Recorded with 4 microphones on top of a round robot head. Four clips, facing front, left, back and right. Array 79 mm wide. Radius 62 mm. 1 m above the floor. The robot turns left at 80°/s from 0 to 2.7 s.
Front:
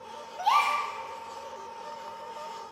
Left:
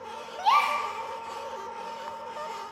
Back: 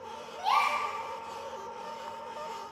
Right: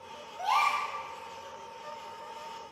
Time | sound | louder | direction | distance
0.4 | a gasp | left 4 dB, front 3 dB | 80° left | 1.0 m